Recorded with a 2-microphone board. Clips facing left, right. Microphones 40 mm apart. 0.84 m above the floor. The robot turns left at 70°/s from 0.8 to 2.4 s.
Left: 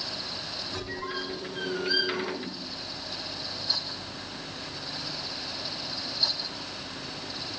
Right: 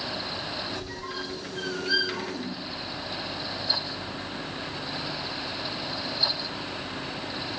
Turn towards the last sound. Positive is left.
turn(degrees=-35)  # may be behind; listen again after turning